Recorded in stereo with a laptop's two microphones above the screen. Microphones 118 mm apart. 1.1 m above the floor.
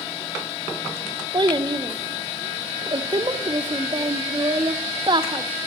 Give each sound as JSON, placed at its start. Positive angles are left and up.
{"t": 1.3, "sound": "a child speaking", "side_deg": -40, "distance_m": 0.5}